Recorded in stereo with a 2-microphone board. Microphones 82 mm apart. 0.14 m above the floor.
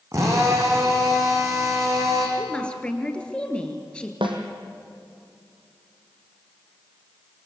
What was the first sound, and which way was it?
A drill, 40° right (ahead or behind).